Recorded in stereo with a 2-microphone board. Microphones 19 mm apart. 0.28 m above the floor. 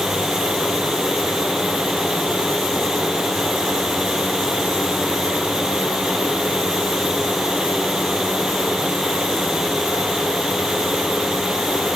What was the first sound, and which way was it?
Only background noise.